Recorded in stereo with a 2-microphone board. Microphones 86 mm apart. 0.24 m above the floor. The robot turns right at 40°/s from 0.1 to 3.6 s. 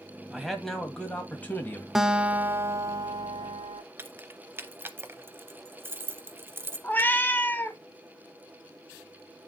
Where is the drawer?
No drawer in this recording.